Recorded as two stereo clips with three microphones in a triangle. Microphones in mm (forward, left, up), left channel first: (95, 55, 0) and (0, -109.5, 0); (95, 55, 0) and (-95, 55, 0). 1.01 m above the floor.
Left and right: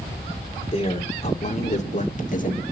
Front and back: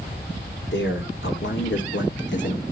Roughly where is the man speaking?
Ahead.